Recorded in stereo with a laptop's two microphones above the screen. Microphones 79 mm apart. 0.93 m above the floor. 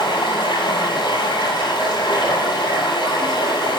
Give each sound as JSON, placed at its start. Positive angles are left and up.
{"t": 0.0, "sound": "running water", "side_deg": 80, "distance_m": 7.0}